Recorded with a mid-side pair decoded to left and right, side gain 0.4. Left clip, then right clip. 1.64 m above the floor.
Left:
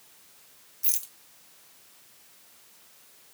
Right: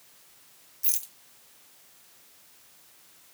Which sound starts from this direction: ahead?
A rattle, at 0.8 s.